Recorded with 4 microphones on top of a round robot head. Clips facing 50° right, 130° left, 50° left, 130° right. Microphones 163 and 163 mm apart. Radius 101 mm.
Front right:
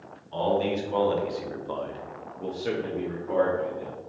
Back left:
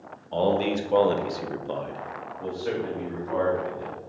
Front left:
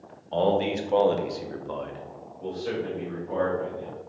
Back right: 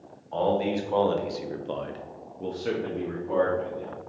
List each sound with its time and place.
0.3 s a man speaking: 105° left, 1.2 m; by 4.0 s 105° right, 1.9 m